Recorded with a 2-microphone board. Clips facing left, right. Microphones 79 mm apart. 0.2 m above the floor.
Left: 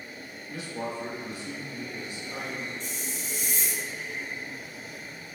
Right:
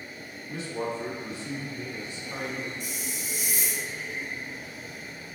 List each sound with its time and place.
0.5 s a man speaking: 30° right (ahead or behind), 1.1 m
2.8 s a hiss: 10° right (ahead or behind), 0.5 m